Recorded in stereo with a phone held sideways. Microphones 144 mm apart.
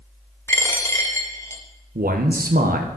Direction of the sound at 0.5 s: 20° left (ahead or behind).